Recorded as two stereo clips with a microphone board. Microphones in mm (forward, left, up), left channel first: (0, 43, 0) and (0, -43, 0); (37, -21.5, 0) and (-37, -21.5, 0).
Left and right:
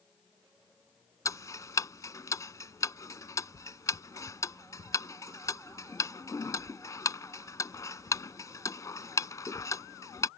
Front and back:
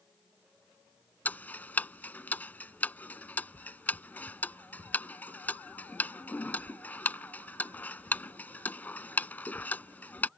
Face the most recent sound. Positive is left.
turn(degrees=60)